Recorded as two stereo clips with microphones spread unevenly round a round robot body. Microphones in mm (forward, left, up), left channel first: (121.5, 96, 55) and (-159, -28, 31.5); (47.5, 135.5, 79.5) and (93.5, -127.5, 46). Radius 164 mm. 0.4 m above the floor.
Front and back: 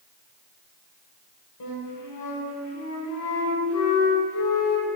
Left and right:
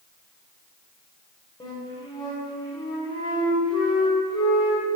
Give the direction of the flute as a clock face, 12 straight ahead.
11 o'clock.